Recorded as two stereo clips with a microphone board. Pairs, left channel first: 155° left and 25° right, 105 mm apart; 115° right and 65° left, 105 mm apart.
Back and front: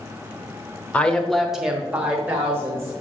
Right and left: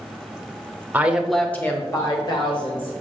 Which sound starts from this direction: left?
A woman speaking, at 0.9 s.